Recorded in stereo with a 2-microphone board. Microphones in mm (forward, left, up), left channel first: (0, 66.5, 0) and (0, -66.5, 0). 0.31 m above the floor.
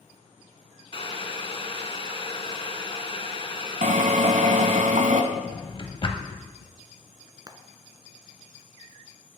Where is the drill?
75° right (ahead or behind), 0.9 m.